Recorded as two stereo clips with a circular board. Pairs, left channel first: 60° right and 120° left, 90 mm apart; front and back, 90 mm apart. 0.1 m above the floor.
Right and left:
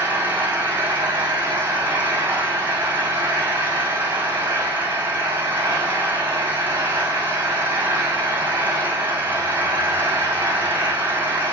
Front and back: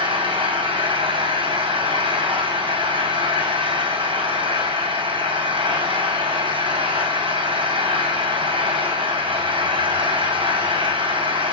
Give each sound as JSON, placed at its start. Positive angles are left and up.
{"t": 0.0, "sound": "an engine running", "azimuth_deg": -175, "distance_m": 4.0}